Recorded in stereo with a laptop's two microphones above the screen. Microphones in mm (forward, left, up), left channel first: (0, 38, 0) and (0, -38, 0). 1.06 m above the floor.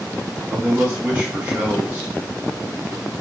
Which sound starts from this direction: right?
A man speaking, at 0.5 s.